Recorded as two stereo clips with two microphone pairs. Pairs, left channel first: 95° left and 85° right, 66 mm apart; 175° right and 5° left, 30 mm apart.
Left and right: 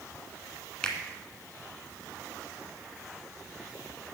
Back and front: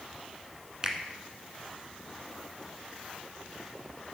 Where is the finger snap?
35° left, 1.4 m.